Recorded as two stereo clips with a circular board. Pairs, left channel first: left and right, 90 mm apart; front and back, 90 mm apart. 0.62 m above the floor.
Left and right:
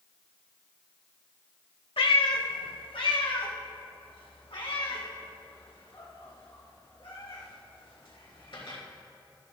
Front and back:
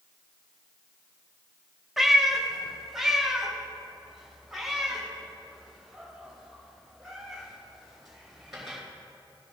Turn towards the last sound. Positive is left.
turn(degrees=95)